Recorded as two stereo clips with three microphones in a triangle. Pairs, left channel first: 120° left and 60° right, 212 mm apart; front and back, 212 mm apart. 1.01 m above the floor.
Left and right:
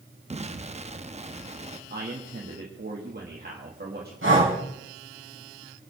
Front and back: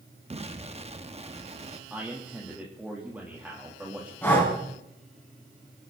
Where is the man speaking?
100° right, 2 m.